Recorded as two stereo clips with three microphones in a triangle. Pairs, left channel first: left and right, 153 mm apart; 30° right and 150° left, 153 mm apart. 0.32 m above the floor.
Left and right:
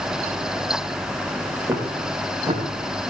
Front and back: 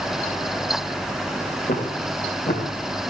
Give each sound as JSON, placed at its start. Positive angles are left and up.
{"t": 1.7, "sound": "footsteps", "azimuth_deg": -15, "distance_m": 4.0}